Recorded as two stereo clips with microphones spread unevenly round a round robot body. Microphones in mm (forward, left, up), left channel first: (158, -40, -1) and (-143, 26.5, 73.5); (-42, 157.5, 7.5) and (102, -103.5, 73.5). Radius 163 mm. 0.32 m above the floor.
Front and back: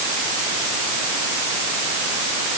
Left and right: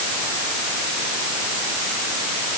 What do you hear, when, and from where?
Only background noise.